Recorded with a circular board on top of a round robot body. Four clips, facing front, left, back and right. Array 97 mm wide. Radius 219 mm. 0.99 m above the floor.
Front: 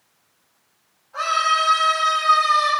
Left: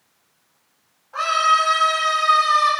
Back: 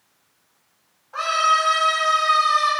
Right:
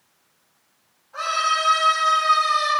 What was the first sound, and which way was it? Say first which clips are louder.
A scream: left 5 dB, back 1 dB; 145° left.